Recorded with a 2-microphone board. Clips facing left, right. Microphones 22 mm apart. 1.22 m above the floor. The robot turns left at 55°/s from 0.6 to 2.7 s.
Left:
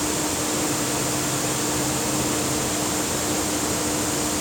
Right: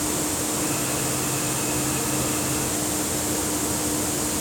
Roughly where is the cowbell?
I don't hear a cowbell.